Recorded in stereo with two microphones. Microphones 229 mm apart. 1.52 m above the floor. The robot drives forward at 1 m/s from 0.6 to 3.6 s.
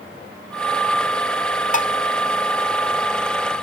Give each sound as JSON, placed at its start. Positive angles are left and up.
{"t": 1.7, "sound": "dishes clattering", "side_deg": 35}